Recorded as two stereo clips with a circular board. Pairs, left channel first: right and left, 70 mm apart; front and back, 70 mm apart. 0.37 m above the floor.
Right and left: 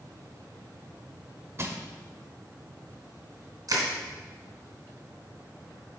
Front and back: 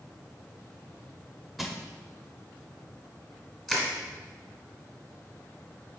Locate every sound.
1.6 s crushing: 90° left, 0.8 m
3.7 s crushing: 95° left, 2 m